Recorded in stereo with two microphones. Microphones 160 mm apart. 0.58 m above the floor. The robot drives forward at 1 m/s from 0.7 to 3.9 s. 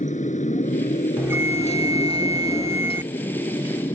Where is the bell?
15° right (ahead or behind).